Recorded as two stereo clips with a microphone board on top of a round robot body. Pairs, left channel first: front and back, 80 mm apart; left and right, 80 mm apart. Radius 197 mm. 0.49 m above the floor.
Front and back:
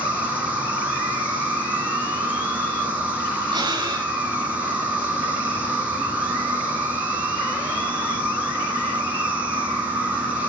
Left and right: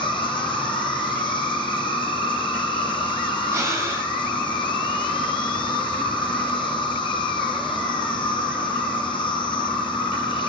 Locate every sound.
0.0 s an insect: 105° left, 1.9 m
3.5 s breathing: 145° right, 3.5 m